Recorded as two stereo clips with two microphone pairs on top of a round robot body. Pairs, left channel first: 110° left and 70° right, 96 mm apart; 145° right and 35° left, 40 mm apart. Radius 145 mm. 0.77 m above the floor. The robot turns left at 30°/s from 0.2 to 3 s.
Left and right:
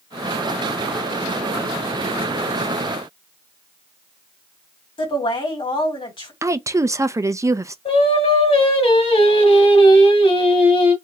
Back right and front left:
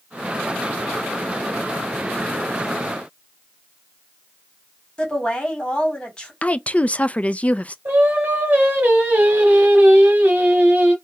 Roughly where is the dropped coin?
No dropped coin in this recording.